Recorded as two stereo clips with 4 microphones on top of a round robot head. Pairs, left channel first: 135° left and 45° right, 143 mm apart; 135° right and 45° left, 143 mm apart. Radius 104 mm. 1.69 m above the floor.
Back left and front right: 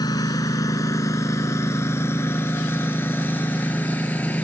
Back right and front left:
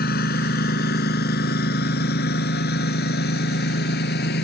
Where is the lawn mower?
160° right; by 4.4 s 145° right.